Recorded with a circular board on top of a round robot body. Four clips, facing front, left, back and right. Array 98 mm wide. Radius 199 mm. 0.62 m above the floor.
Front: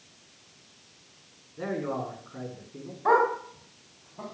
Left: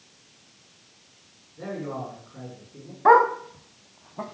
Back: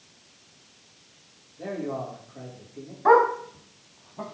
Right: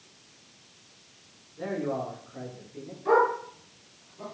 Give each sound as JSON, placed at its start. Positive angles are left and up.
{"t": 1.6, "sound": "a man speaking", "azimuth_deg": 0, "distance_m": 8.0}
{"t": 3.0, "sound": "a dog barking", "azimuth_deg": 110, "distance_m": 2.0}